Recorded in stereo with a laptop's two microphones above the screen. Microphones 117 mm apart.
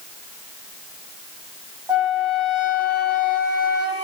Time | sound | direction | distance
1.9 | a flute | 40° right (ahead or behind) | 1.4 m